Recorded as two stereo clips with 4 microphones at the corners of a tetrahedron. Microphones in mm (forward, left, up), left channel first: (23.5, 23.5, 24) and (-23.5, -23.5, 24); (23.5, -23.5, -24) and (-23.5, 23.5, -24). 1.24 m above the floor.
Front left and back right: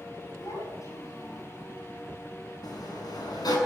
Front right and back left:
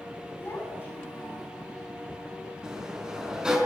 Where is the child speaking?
10° left, 8 m.